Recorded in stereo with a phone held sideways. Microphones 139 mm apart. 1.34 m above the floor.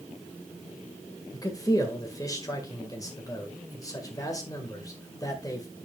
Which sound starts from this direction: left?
A man speaking, at 1.3 s.